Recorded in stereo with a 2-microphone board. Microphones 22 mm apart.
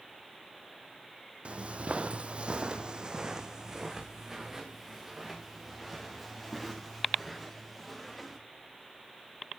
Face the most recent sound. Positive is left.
turn(degrees=-5)  # may be behind; listen again after turning